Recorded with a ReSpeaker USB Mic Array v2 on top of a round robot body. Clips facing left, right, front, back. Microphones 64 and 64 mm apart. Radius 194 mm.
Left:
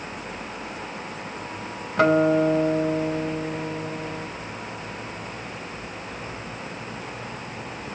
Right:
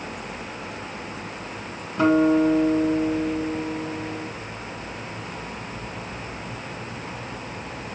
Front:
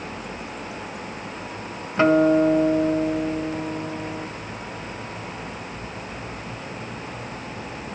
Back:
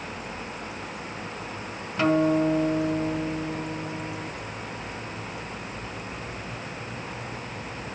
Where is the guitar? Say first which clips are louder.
Even, front 5 dB; 60° left, 1.4 m.